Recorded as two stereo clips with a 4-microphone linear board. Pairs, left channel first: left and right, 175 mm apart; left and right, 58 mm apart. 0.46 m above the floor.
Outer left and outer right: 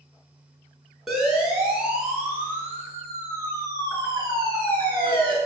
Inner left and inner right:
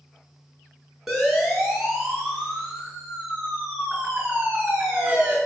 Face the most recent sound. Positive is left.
turn(degrees=-30)  # may be behind; listen again after turning